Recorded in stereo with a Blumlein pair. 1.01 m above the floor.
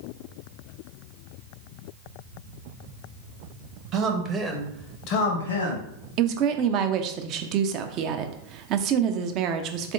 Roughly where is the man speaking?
Ahead right.